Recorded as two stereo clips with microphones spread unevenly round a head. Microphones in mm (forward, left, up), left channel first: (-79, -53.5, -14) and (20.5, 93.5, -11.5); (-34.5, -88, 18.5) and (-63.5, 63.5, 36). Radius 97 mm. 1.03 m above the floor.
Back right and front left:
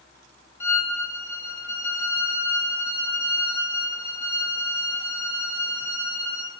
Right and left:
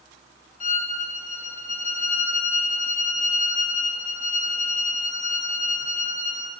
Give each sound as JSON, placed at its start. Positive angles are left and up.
{"t": 0.6, "sound": "a violin", "azimuth_deg": -55, "distance_m": 0.6}